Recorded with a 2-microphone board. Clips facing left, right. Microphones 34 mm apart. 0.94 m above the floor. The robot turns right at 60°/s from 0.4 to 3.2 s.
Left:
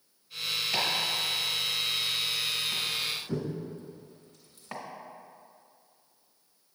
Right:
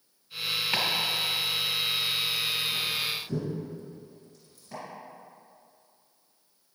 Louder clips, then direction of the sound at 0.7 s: Right 1 dB; 45° right (ahead or behind).